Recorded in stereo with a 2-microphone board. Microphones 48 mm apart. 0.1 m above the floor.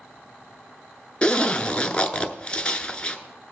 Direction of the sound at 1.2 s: 20° left (ahead or behind).